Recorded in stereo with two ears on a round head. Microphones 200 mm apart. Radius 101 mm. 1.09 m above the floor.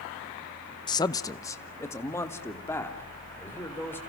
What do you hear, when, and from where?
0.9 s a man speaking: 20° left (ahead or behind), 0.5 m; by 4.0 s 10° left (ahead or behind), 3.5 m